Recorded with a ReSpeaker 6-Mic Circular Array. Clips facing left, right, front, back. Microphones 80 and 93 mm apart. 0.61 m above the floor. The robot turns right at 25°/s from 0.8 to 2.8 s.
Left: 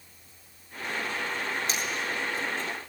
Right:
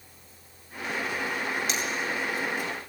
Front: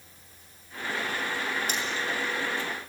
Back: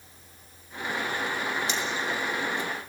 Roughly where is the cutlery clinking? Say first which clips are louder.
Right 1 dB, back 1 dB; ahead left.